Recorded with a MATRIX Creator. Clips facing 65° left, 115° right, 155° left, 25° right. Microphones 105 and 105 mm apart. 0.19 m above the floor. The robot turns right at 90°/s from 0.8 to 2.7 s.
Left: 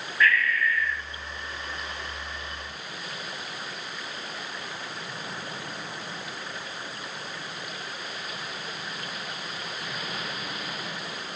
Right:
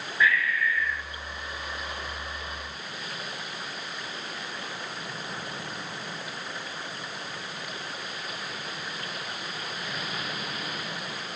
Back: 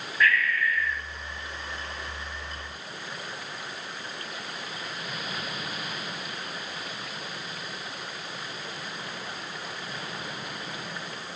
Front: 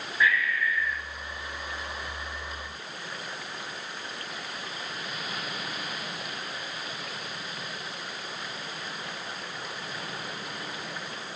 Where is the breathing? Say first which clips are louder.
Left 1 dB, back 1 dB; 60° right, 0.7 m; by 1.0 s 40° right, 0.7 m.